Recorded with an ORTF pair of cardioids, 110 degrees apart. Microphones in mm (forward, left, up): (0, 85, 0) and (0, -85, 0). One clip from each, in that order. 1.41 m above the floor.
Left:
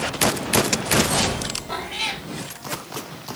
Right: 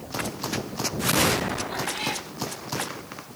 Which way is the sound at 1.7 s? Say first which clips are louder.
Left 2 dB; 50° left.